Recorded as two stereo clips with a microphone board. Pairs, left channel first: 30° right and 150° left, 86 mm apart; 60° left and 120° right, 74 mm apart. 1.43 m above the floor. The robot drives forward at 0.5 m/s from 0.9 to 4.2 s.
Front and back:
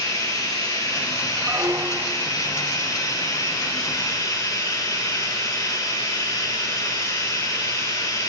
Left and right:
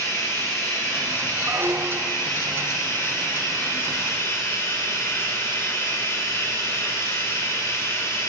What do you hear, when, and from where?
0.0 s running water: 10° left, 10 m
1.4 s a squeak: 165° right, 1.1 m; by 2.3 s 170° right, 1.5 m